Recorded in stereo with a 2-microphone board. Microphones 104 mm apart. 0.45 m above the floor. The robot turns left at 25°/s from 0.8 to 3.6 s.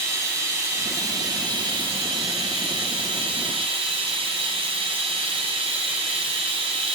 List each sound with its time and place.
0.0 s running water: 30° right, 1.6 m; by 7.0 s 100° right, 1.6 m